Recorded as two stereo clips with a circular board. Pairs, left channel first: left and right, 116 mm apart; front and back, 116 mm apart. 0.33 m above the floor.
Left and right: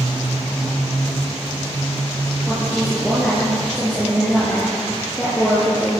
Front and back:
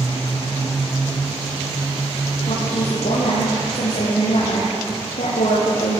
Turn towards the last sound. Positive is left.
turn(degrees=0)